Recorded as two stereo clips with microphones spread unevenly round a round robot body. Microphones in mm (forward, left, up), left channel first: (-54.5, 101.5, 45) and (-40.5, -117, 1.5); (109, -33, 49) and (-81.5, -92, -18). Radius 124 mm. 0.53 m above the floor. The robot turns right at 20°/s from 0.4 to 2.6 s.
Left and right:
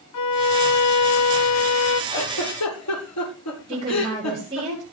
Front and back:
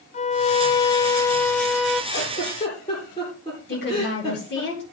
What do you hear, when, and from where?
0.1 s a violin: 85° left, 1.0 m; by 2.0 s 120° left, 1.0 m
2.1 s a giggle: 85° left, 10 m; by 4.7 s 95° left, 10 m
3.7 s a woman speaking: 20° right, 8.5 m